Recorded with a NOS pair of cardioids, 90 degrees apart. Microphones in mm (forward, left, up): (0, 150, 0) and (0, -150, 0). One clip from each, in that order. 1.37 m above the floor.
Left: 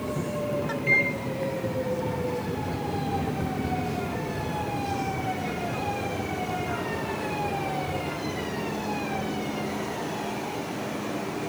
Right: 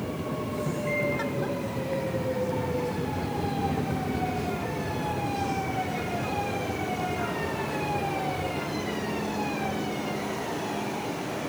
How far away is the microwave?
About 1.4 m.